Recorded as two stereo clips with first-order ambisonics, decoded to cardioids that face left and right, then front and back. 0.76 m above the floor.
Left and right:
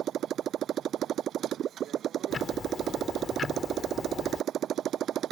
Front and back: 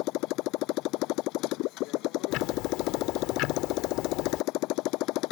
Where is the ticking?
20° left.